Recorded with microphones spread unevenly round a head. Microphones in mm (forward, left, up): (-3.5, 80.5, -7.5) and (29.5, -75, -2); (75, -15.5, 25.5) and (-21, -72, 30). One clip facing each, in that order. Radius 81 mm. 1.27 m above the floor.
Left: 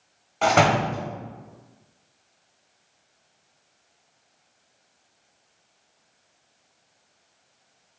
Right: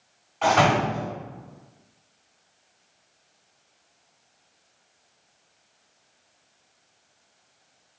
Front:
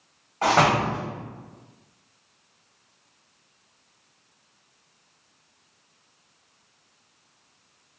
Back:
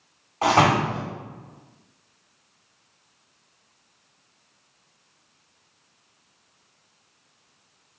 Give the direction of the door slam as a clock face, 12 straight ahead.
8 o'clock.